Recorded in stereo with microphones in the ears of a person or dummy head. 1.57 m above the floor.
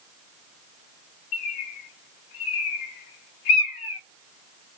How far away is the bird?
About 0.8 m.